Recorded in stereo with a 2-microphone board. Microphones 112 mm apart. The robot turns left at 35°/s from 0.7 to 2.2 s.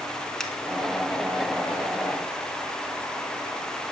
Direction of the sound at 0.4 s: 5° left (ahead or behind).